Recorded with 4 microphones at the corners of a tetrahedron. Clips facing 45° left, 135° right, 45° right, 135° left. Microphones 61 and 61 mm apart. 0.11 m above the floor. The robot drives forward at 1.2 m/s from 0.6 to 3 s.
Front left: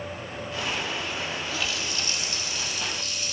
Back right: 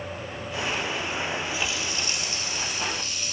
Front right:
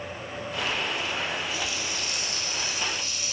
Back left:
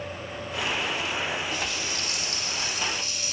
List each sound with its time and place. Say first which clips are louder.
1.5 s a running tap: back right 1 dB, back left 1 dB; 160° left, 1.6 m; by 3.3 s 170° left, 3 m